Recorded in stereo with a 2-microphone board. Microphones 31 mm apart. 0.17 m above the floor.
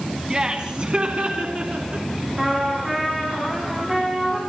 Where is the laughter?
25° right (ahead or behind), 1.8 m; by 2.1 s 55° right (ahead or behind), 2.5 m.